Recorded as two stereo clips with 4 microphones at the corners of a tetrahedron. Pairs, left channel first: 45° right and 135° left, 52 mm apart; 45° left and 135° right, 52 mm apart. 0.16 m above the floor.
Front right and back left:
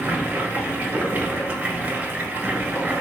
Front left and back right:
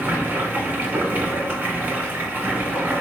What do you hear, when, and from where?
0.0 s running water: 175° right, 1.1 m